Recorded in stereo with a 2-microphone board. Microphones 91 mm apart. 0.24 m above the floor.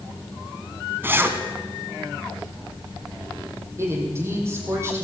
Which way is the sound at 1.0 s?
20° right (ahead or behind).